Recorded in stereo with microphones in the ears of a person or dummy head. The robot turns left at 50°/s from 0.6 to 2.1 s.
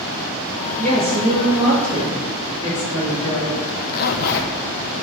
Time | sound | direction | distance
0.8 | a woman speaking | 135° right | 2 m
3.6 | a zipper | 50° left (ahead or behind) | 0.6 m